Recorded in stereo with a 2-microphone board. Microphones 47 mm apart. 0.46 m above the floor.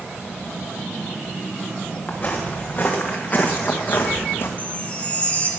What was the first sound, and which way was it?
Footsteps, 20° left (ahead or behind).